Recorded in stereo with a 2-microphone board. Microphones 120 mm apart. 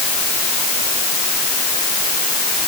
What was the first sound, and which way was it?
Only background noise.